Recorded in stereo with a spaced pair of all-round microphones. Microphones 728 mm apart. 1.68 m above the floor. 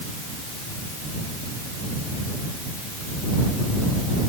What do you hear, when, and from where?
Only background noise.